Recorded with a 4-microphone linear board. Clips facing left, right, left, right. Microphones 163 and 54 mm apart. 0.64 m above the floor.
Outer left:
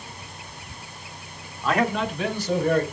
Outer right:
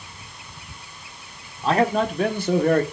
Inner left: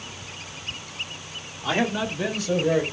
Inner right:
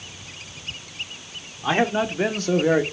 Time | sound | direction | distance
1.6 | a man speaking | 30° right (ahead or behind) | 1.7 m